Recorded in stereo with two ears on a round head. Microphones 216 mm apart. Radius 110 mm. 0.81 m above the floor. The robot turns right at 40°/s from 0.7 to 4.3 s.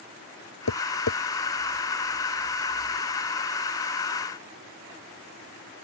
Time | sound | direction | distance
0.7 | tapping | 75° left (ahead or behind) | ?